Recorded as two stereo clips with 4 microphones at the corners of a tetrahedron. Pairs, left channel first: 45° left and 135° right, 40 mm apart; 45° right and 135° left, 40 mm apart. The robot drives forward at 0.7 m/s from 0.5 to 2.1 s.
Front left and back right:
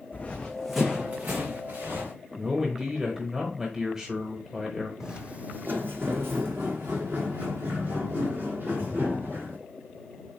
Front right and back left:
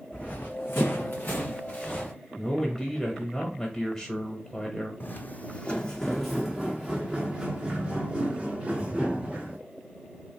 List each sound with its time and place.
0.1 s running footsteps: 5° left, 0.7 m; by 2.1 s 105° right, 2.0 m
2.4 s a man speaking: 90° right, 0.9 m
5.0 s footsteps: 60° right, 0.5 m; by 9.6 s 160° right, 2.5 m